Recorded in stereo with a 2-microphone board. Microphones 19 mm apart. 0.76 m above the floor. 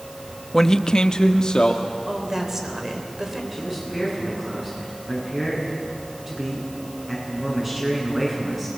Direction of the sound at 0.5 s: 20° left (ahead or behind).